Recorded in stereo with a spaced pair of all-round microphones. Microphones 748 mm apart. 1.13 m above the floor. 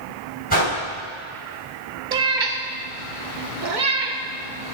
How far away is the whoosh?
About 5 m.